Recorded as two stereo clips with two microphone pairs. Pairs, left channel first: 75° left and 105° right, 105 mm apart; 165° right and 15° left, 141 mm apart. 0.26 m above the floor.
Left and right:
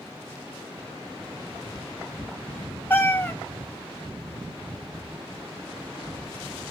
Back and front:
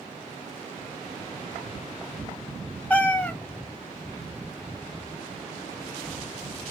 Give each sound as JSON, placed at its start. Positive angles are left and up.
{"t": 2.9, "sound": "a cat meowing", "azimuth_deg": 125, "distance_m": 0.6}